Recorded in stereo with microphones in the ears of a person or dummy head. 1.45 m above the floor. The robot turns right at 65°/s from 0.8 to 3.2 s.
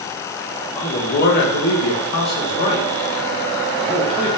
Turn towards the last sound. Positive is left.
turn(degrees=-175)